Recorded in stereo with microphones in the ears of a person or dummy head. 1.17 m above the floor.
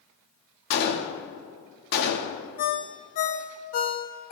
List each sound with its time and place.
0.7 s a gunshot: 65° left (ahead or behind), 1.5 m
2.6 s a ringtone: 35° left (ahead or behind), 1.0 m